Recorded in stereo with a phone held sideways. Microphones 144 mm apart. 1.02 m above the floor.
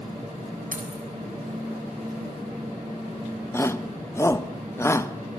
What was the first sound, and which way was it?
Keys jangling, 80° right.